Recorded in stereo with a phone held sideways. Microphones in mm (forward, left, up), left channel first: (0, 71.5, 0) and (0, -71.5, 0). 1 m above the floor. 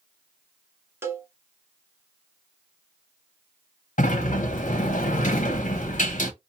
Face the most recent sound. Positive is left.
turn(degrees=60)  # may be behind; listen again after turning